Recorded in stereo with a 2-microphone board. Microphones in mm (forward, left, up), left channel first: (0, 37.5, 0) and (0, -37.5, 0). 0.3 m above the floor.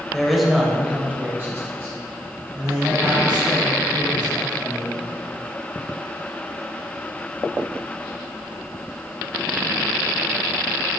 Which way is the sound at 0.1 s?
5° left (ahead or behind).